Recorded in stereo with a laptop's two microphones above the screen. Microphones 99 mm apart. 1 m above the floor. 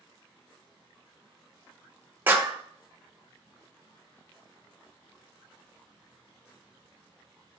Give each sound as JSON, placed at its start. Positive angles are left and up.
{"t": 2.3, "sound": "a clap", "side_deg": -20, "distance_m": 1.2}